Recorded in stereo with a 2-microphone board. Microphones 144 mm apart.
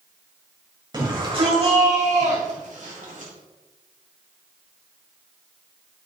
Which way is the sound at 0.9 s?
30° right (ahead or behind).